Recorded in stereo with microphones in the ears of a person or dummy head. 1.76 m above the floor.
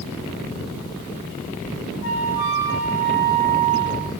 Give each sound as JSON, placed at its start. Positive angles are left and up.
{"t": 2.0, "sound": "a flute", "side_deg": 70, "distance_m": 8.0}